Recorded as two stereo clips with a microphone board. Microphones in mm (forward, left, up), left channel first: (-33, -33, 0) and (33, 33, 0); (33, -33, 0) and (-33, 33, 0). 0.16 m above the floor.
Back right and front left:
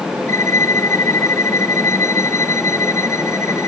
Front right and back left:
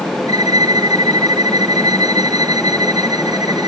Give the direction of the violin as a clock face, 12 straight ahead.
6 o'clock.